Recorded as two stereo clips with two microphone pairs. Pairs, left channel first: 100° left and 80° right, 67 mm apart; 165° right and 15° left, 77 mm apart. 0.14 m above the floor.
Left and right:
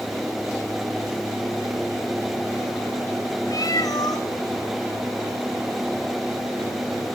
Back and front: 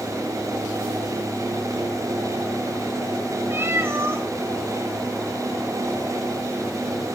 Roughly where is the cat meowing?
Left.